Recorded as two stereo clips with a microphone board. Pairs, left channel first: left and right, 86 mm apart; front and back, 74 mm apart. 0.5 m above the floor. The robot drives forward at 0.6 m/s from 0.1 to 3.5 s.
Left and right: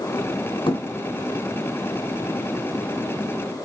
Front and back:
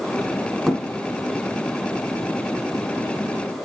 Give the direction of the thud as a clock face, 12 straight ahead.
9 o'clock.